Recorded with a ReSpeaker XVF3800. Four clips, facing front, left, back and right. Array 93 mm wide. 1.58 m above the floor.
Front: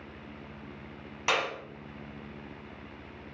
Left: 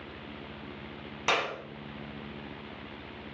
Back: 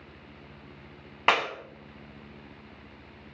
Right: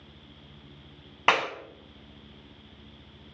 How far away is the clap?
About 0.8 m.